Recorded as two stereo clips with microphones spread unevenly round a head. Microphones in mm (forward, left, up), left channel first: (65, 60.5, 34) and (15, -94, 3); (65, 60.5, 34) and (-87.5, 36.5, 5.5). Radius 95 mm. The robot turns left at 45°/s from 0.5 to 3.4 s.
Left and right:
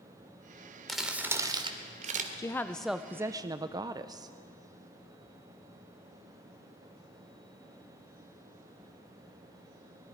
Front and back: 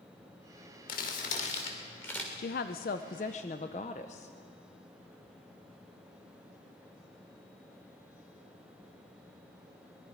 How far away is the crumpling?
About 1.9 m.